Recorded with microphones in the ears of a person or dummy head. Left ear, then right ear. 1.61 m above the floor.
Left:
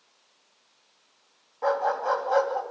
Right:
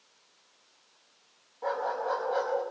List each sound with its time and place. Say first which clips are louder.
1.6 s a dog barking: left 6 dB; 30° left (ahead or behind), 5 m